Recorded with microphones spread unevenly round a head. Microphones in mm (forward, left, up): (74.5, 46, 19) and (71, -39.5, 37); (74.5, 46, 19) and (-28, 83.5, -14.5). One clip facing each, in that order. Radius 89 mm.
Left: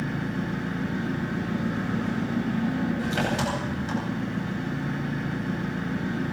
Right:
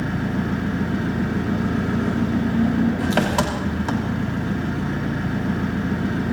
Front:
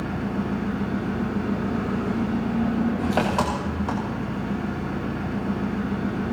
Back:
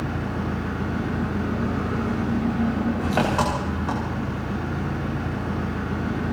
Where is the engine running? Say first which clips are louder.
Right 5 dB, front 1 dB; 95° right, 3 m.